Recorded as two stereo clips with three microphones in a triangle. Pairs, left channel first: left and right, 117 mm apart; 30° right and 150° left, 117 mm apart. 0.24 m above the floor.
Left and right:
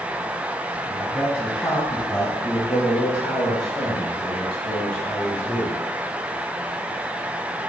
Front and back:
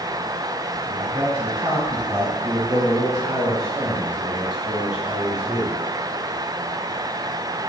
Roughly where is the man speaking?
Behind left.